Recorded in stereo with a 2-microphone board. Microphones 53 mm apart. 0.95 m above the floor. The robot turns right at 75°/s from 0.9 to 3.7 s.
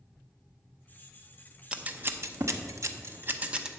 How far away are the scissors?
About 0.7 m.